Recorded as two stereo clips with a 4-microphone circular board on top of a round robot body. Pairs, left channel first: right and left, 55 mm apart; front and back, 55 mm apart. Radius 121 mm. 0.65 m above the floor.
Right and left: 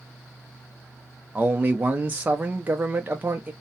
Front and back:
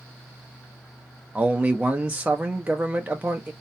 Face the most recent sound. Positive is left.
turn(degrees=135)